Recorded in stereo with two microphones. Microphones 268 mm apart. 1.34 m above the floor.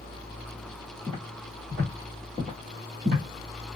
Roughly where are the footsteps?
Centre.